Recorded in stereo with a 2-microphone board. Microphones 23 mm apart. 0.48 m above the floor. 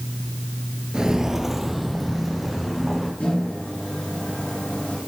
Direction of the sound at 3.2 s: 75° left (ahead or behind).